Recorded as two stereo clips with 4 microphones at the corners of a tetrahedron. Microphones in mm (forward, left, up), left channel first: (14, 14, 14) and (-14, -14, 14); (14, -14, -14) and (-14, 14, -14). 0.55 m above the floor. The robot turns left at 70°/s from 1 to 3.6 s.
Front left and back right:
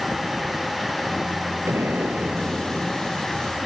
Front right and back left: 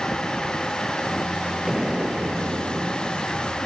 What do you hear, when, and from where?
1.7 s an explosion: 140° right; by 3.6 s 85° left